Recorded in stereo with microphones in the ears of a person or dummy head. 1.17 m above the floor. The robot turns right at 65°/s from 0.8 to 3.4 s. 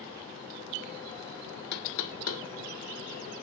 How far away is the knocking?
About 1.0 m.